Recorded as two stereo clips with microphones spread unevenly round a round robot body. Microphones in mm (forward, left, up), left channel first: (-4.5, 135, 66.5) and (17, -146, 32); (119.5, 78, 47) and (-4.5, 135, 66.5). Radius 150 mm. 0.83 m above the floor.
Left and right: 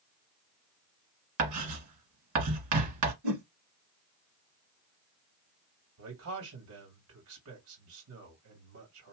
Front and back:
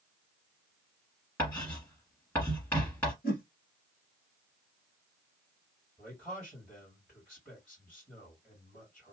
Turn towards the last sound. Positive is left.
turn(degrees=-105)